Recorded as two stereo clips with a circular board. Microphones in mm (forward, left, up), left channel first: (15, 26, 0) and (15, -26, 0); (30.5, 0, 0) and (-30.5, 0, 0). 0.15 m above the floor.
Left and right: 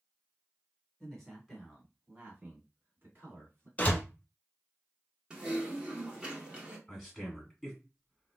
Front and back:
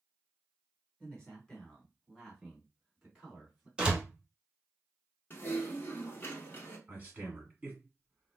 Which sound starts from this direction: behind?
A man speaking, at 6.9 s.